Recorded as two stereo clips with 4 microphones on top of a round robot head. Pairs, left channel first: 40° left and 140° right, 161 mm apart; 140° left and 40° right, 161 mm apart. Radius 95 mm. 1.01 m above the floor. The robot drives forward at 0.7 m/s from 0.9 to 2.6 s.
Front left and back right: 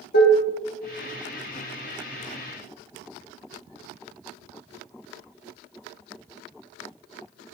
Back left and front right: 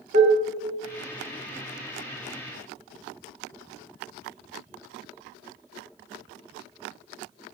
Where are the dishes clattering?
5° left, 1.3 m.